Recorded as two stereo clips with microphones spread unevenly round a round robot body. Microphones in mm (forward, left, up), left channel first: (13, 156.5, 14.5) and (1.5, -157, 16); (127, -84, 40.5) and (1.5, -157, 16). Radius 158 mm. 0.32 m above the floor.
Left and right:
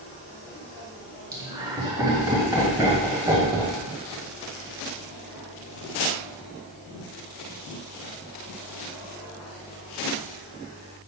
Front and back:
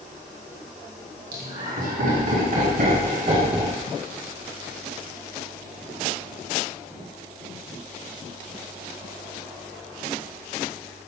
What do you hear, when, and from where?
1.3 s laughter: 170° right, 2.5 m; by 3.8 s 165° right, 1.2 m